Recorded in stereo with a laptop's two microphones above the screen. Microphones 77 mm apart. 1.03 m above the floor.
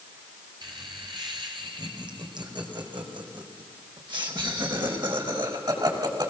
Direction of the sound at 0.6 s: 65° right (ahead or behind).